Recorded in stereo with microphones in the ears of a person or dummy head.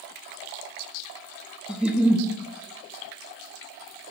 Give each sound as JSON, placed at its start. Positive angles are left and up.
{"t": 1.7, "sound": "a giggle", "side_deg": -5, "distance_m": 0.7}